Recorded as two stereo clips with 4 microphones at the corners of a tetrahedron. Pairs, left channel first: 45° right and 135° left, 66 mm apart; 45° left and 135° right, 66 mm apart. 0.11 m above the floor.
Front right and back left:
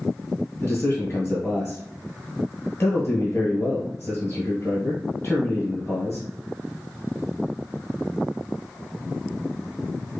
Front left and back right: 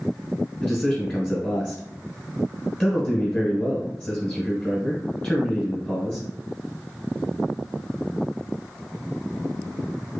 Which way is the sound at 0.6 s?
10° right.